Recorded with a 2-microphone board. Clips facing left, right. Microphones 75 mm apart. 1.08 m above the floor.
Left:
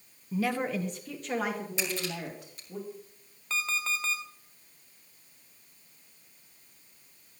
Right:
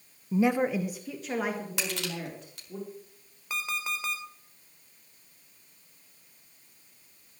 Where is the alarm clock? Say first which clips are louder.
Left 1 dB; 10° right (ahead or behind), 2.5 m.